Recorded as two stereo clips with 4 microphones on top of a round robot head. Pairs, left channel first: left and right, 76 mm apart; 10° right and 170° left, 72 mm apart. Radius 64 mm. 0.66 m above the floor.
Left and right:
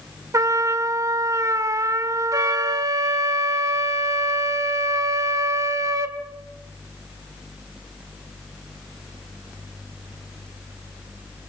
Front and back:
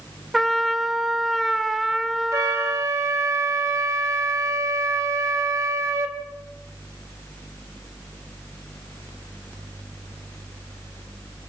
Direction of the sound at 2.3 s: 135° right.